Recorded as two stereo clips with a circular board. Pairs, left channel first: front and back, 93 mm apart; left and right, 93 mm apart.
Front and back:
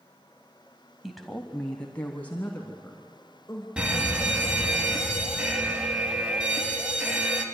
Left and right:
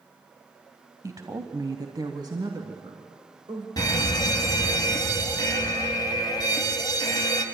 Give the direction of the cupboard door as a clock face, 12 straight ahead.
I don't hear a cupboard door.